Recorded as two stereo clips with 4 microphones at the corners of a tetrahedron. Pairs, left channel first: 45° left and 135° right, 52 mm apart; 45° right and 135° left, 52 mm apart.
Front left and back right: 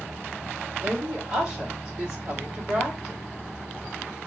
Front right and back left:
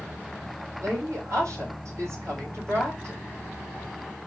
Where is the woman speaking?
150° left, 3 m.